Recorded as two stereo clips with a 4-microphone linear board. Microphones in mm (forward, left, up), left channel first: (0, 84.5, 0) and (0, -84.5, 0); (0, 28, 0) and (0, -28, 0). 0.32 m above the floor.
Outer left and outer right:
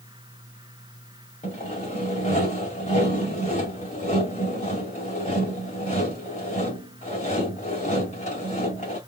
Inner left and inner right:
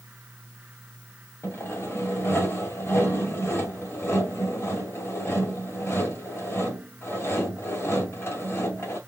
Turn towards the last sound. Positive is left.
turn(degrees=45)  # may be behind; listen again after turning